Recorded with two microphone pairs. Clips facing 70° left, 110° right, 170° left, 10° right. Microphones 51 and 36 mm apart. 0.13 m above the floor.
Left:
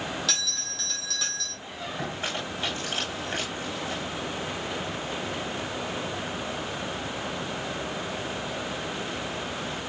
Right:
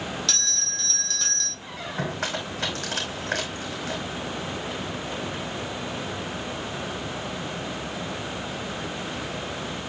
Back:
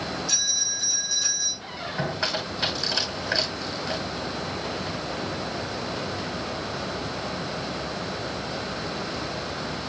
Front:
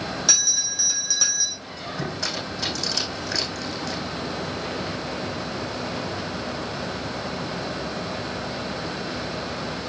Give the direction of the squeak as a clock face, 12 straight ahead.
4 o'clock.